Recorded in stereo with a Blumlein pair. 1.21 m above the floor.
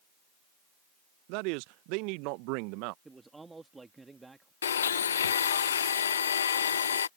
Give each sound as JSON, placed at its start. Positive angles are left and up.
{"t": 1.3, "sound": "a man speaking", "azimuth_deg": -45}
{"t": 3.0, "sound": "a man speaking", "azimuth_deg": -10}
{"t": 4.6, "sound": "a blender", "azimuth_deg": 65}